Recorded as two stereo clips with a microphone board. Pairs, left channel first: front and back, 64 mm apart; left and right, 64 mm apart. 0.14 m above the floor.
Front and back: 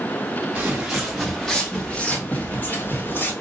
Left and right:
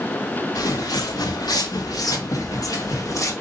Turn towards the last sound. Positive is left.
turn(degrees=50)